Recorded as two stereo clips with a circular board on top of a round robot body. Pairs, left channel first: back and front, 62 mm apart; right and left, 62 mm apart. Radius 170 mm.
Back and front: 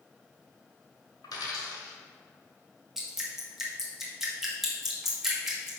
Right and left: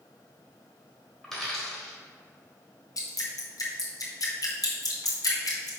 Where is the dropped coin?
175° right, 1.5 m.